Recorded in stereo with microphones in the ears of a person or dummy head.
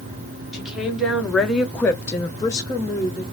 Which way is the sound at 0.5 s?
5° right (ahead or behind).